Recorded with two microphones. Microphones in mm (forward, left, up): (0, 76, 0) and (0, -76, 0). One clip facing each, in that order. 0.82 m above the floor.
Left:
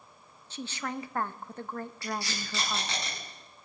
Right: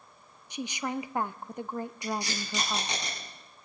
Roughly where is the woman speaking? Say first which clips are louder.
Right 3 dB; centre.